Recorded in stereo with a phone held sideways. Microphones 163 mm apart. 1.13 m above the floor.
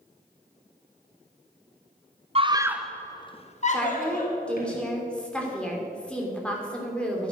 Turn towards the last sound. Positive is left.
turn(degrees=5)  # may be behind; listen again after turning